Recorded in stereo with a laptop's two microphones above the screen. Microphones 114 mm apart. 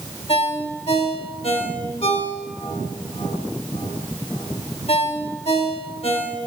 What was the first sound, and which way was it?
A ringtone, 60° left (ahead or behind).